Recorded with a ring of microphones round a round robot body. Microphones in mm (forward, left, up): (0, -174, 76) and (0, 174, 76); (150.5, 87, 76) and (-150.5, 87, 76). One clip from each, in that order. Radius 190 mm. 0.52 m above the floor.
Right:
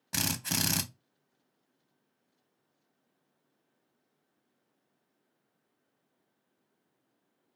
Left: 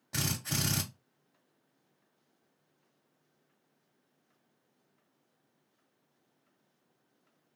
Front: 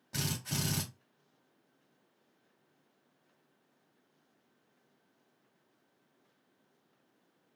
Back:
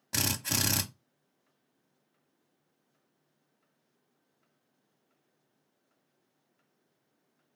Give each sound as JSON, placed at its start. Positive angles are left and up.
{"t": 0.1, "sound": "a drill", "azimuth_deg": -140, "distance_m": 0.6}